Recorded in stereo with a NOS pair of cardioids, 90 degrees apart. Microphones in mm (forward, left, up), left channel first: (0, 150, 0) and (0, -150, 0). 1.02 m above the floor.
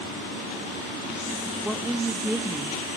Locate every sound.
1.6 s a woman speaking: straight ahead, 1.0 m